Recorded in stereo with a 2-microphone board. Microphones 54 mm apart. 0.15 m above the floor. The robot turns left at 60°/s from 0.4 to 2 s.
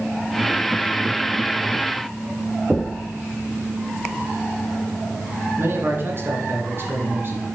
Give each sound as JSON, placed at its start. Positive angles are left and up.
{"t": 2.7, "sound": "knocking", "side_deg": -5, "distance_m": 0.7}
{"t": 5.6, "sound": "a man speaking", "side_deg": -45, "distance_m": 1.7}